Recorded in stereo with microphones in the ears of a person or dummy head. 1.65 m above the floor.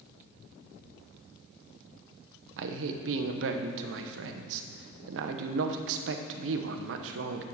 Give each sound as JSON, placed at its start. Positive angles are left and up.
{"t": 2.6, "sound": "a man speaking", "side_deg": -70, "distance_m": 1.1}